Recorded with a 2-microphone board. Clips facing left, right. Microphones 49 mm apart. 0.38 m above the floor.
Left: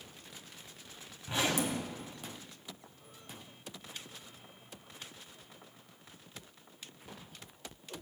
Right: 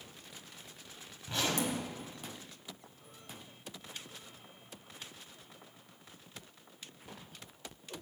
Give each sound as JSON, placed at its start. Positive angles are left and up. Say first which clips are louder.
{"t": 1.3, "sound": "a zipper", "louder": "left 1 dB", "side_deg": 15, "distance_m": 2.5}